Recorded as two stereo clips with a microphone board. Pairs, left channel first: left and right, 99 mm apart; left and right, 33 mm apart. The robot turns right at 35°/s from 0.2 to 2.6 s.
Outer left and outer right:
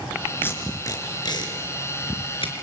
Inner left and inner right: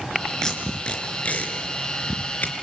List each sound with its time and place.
0.4 s tape being pulled: 20° left (ahead or behind), 3.5 m; by 2.5 s 70° left (ahead or behind), 3.5 m